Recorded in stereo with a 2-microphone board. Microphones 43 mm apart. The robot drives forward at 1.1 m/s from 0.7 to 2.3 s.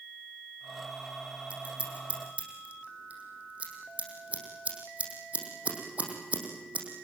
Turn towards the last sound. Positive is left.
turn(degrees=-35)  # may be behind; listen again after turning